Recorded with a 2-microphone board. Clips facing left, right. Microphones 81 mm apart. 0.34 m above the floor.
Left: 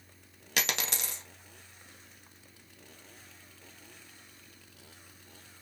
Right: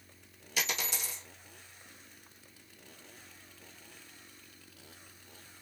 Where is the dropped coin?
90° left, 1.1 m.